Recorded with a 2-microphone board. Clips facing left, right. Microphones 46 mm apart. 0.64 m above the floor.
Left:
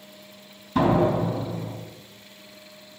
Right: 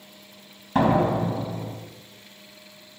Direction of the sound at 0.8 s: 60° right (ahead or behind).